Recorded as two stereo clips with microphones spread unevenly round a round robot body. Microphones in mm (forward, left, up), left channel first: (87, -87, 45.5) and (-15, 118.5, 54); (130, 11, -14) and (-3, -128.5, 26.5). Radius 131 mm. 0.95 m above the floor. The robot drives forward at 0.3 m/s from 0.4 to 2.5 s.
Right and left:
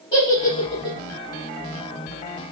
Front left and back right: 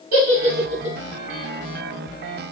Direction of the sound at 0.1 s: 135° right.